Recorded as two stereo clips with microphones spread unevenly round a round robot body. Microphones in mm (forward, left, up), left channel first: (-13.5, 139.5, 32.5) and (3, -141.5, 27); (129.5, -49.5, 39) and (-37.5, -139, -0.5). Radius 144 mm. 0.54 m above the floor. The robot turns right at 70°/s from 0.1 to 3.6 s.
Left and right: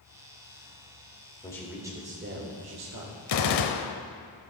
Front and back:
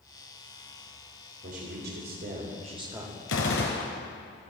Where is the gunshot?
55° left, 0.7 m; by 4.0 s 80° left, 0.7 m.